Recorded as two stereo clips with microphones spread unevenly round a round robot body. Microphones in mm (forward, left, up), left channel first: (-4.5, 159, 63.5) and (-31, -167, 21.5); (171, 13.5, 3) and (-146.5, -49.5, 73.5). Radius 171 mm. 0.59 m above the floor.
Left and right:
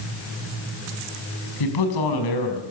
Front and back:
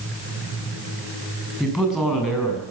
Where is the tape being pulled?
No tape being pulled in this recording.